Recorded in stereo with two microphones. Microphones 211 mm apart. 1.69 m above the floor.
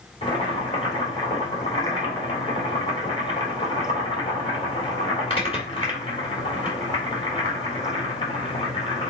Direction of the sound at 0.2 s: 25° left (ahead or behind).